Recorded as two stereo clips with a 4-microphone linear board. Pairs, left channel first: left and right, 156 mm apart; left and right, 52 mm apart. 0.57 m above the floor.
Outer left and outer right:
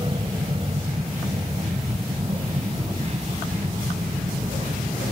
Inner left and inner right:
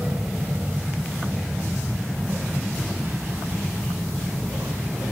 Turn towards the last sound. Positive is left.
turn(degrees=-45)  # may be behind; listen again after turning